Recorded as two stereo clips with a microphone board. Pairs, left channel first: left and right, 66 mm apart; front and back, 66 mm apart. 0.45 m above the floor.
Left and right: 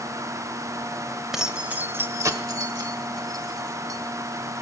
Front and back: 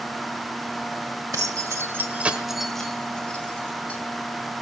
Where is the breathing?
I don't hear breathing.